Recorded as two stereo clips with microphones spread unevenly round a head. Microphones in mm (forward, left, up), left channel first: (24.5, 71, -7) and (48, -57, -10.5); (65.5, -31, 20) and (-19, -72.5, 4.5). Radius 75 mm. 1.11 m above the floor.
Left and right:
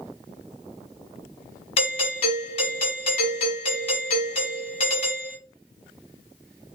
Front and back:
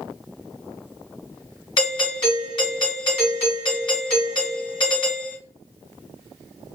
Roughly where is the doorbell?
Left.